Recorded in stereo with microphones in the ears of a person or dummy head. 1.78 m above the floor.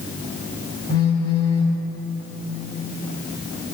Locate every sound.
0.9 s a phone buzzing: 20° left (ahead or behind), 1.5 m